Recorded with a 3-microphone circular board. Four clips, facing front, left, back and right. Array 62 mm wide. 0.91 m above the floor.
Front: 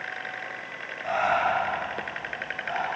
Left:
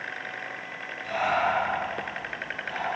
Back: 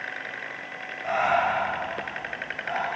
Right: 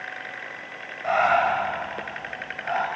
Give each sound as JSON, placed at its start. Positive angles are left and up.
{"t": 1.0, "sound": "breathing", "azimuth_deg": -90, "distance_m": 5.0}